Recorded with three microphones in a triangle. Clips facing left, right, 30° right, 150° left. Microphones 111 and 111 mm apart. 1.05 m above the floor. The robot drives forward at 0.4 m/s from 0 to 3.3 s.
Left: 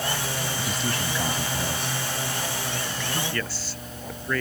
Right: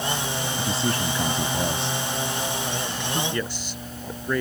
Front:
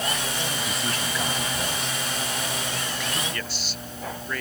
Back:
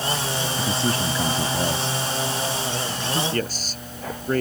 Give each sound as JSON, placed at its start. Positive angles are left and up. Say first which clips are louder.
{"t": 0.6, "sound": "a man speaking", "louder": "right 3 dB, back 6 dB", "azimuth_deg": -150}
{"t": 3.3, "sound": "a man speaking", "louder": "right 3 dB, back 7 dB", "azimuth_deg": -165}